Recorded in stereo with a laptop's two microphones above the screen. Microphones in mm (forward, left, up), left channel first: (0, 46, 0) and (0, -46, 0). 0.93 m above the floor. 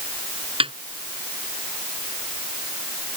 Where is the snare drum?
80° right.